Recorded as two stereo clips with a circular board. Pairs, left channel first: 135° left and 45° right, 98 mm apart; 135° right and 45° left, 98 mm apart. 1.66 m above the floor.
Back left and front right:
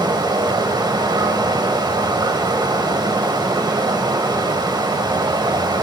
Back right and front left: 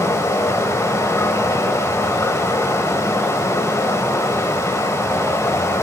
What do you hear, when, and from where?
0.0 s running water: 80° right, 1.3 m